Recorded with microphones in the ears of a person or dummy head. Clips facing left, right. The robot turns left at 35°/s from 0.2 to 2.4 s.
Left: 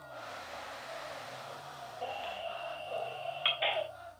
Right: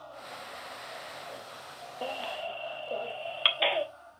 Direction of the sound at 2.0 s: 45° right (ahead or behind).